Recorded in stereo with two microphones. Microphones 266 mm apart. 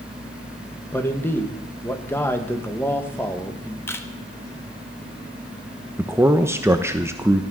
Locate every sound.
0.9 s a man speaking: 10° left (ahead or behind), 1.7 m
3.9 s a camera shutter: 10° left (ahead or behind), 1.3 m
6.0 s a man speaking: 10° right (ahead or behind), 1.0 m